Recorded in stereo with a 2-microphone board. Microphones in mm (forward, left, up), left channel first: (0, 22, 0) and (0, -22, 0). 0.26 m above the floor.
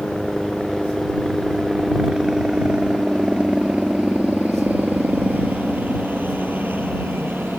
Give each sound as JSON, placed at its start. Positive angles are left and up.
{"t": 0.0, "sound": "a helicopter", "side_deg": 10}